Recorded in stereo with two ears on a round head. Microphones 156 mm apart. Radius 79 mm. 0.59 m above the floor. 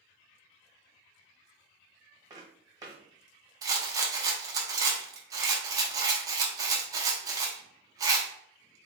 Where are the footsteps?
25° right (ahead or behind), 1.3 m.